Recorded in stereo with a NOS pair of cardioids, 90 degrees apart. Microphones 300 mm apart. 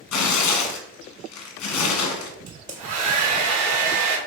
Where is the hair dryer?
70° right, 1.0 m.